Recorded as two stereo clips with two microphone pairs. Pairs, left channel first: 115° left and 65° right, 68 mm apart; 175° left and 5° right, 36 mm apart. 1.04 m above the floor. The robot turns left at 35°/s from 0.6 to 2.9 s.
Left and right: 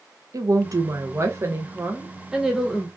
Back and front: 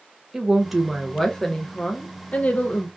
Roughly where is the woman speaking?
Right.